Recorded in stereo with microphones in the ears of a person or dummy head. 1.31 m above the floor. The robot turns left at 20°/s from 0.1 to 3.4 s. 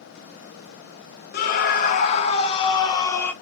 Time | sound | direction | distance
1.3 | a scream | 60° left | 0.9 m